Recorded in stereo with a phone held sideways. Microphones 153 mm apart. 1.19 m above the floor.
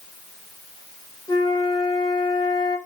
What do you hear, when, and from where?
1.3 s a flute: 25° left (ahead or behind), 1.2 m